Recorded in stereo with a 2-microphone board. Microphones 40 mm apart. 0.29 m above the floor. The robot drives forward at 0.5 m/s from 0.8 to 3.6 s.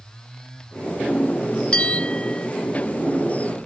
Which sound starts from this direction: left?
A bell, at 1.7 s.